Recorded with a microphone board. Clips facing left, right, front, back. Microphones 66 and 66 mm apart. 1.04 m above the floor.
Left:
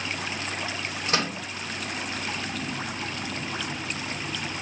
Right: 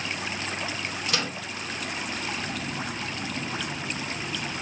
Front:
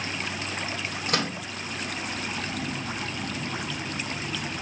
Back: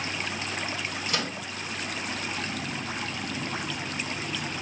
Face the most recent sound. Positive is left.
turn(degrees=35)